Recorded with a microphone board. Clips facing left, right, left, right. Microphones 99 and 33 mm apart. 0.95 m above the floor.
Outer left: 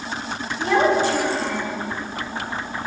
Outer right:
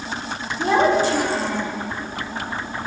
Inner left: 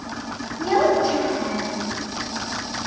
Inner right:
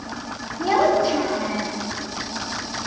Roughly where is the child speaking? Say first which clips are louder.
Outer right 1 dB, even; right.